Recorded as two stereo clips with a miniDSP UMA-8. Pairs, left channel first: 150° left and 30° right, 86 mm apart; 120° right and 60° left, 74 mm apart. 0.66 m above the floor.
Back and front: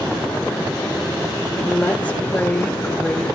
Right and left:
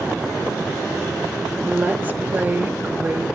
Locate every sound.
1.6 s a woman speaking: 95° left, 1.2 m